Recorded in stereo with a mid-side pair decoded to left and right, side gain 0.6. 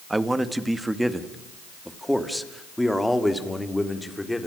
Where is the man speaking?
15° right, 2 m; by 4.5 s 10° left, 4 m.